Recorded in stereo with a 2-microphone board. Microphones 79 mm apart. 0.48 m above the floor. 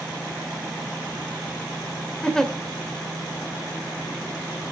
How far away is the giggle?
About 1.6 m.